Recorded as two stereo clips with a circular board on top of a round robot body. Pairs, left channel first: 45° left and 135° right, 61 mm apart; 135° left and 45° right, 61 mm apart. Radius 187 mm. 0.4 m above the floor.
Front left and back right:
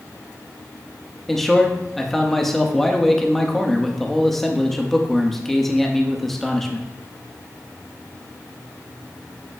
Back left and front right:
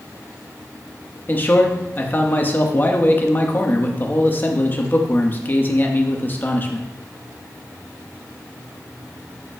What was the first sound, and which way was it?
A man speaking, 130° left.